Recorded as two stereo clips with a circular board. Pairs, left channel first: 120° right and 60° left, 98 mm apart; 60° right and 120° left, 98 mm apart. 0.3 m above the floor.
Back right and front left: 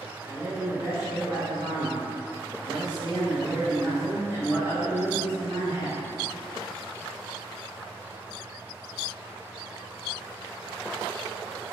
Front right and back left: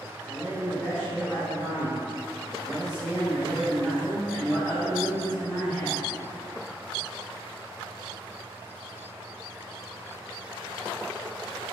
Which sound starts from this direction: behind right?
A man speaking, at 0.2 s.